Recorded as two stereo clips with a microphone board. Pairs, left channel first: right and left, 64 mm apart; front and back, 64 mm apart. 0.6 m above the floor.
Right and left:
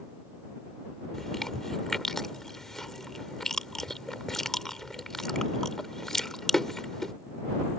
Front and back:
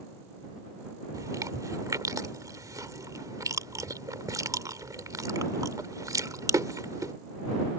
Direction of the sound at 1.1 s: 170° right.